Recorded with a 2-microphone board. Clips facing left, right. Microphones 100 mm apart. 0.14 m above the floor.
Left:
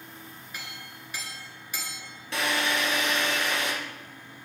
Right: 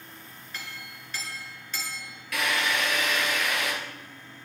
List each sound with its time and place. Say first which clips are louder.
0.5 s a clink: right 2 dB; 10° left (ahead or behind), 1.6 m
2.3 s a drill: even; 30° left (ahead or behind), 1.7 m